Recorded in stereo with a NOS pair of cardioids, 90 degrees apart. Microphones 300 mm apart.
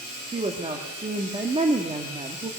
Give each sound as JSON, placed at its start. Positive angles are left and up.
{"t": 0.3, "sound": "a woman speaking", "azimuth_deg": -20, "distance_m": 1.6}